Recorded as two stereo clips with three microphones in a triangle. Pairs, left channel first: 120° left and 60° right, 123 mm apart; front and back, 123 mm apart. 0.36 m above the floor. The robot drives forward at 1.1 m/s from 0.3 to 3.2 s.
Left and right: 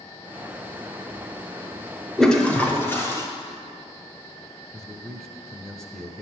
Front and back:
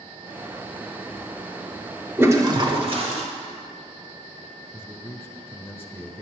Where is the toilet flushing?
155° right, 1.0 m; by 3.2 s 175° right, 1.7 m.